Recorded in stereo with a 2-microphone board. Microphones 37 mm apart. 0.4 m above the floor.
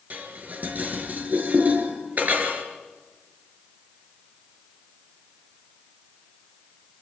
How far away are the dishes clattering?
About 5 m.